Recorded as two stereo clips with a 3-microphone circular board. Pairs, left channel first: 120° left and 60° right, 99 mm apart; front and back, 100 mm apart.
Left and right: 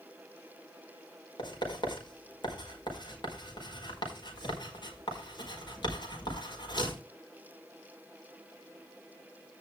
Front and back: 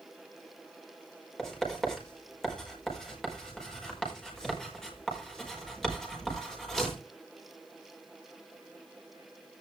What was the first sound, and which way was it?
Writing, 85° left.